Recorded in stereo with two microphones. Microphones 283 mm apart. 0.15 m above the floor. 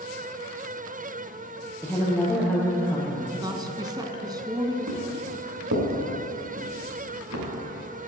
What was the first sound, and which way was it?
A woman speaking, 5° left (ahead or behind).